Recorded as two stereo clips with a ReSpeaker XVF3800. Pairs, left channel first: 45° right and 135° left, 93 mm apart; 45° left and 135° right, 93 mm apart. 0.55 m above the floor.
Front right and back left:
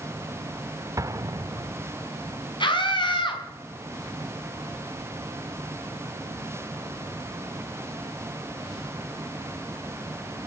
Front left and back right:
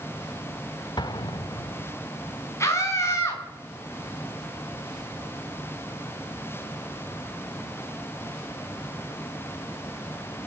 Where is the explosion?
80° left, 0.6 m.